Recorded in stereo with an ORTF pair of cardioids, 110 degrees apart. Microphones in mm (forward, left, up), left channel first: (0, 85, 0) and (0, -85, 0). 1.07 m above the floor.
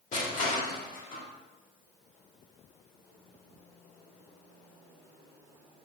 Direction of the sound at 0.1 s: 50° left.